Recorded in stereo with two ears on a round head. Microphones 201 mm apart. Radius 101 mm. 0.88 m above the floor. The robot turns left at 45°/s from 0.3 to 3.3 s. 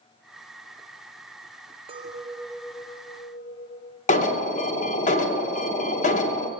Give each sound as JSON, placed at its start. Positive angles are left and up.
{"t": 1.9, "sound": "a clink", "azimuth_deg": -155, "distance_m": 0.7}
{"t": 4.1, "sound": "an alarm", "side_deg": 35, "distance_m": 1.0}